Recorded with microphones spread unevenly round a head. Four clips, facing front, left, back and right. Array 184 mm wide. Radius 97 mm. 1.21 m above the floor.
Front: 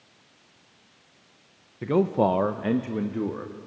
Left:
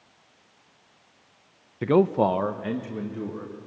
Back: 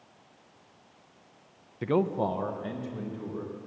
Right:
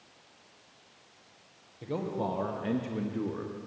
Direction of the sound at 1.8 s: 80° left.